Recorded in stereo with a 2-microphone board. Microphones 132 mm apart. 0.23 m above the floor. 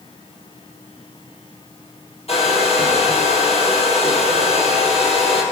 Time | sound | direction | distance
2.3 | a hair dryer | 50° left (ahead or behind) | 3.5 m